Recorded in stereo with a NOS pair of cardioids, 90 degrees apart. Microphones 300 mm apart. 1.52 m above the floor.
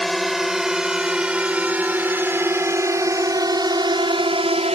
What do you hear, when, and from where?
0.0 s a drone: straight ahead; by 4.8 s 20° right